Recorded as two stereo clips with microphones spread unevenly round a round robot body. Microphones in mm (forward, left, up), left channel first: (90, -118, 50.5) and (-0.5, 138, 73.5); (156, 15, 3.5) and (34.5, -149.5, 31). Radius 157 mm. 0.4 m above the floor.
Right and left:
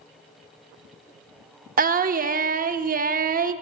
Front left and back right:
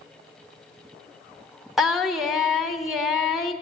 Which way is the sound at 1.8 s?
130° left.